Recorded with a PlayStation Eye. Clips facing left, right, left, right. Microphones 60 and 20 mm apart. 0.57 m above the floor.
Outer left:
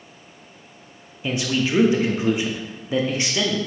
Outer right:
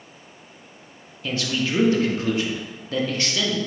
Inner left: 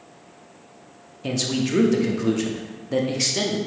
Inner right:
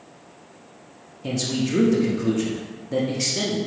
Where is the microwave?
No microwave in this recording.